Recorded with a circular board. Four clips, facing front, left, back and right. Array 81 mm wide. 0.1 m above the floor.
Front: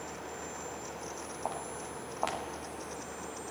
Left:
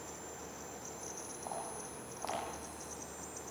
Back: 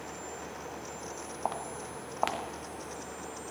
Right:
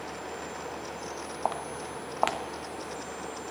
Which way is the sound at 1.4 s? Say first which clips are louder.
Right 11 dB, back 3 dB; 105° right.